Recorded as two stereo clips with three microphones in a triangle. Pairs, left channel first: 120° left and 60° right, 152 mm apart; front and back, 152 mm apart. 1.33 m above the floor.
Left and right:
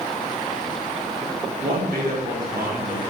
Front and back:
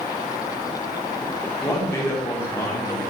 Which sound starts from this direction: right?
A man speaking, at 1.6 s.